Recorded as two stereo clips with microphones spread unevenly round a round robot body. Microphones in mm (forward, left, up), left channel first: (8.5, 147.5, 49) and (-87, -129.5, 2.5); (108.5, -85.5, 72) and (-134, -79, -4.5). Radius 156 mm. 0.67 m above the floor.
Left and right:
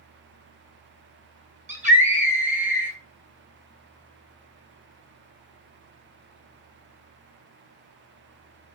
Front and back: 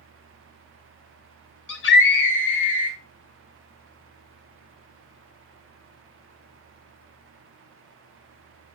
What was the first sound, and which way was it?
A scream, 45° right.